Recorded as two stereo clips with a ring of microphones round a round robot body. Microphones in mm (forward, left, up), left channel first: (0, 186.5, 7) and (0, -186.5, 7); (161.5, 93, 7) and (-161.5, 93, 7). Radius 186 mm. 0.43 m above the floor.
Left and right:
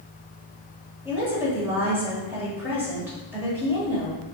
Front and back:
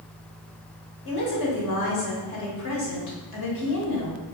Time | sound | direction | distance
1.1 | a woman speaking | 5° right | 1.6 m